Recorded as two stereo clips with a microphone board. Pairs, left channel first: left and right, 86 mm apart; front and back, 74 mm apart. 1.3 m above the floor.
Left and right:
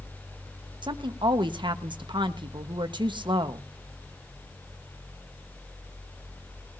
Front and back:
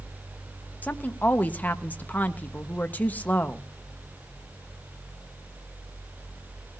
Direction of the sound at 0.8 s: 70° right.